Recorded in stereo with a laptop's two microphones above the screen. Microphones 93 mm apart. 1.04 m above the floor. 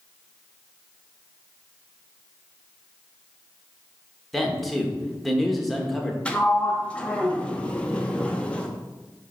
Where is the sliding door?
15° left (ahead or behind), 0.9 m.